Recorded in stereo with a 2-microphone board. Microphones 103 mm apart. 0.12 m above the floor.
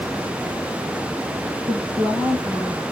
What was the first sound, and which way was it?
A woman speaking, 30° right (ahead or behind).